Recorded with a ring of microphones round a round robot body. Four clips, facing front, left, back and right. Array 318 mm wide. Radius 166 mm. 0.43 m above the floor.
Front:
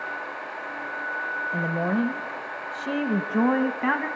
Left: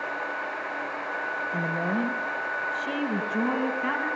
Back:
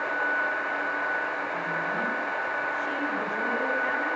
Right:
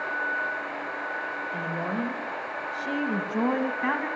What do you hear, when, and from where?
1.5 s a woman speaking: 15° left, 1.9 m; by 4.1 s 20° right, 3.5 m